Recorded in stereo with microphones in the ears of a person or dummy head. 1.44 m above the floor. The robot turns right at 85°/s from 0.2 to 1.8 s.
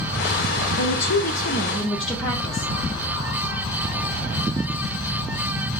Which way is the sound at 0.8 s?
80° left.